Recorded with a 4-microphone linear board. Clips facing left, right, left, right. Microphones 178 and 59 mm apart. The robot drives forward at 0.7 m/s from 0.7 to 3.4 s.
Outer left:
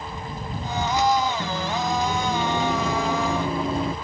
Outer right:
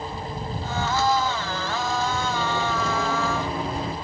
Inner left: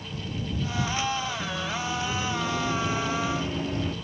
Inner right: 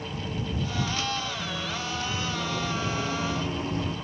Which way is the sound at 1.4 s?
40° left (ahead or behind).